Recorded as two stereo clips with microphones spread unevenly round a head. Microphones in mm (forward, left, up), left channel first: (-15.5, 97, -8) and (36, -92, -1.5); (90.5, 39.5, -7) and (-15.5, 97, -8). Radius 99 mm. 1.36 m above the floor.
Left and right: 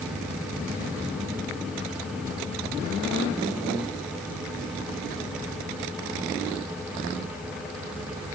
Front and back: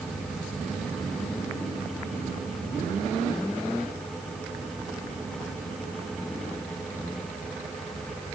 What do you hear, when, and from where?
Only background noise.